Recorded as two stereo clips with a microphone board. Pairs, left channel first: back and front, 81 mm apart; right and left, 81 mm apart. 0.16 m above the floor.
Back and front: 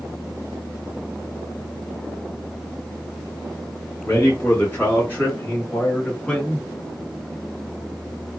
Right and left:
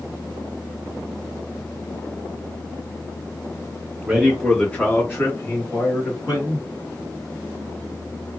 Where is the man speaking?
170° left, 1.6 m; by 6.7 s 110° right, 3 m.